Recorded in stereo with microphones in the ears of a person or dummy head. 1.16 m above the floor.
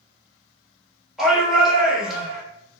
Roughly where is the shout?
Centre.